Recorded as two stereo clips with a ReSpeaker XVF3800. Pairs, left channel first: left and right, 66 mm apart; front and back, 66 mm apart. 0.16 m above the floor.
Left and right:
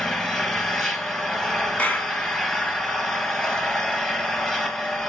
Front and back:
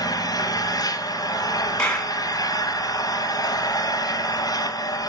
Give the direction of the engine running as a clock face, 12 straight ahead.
12 o'clock.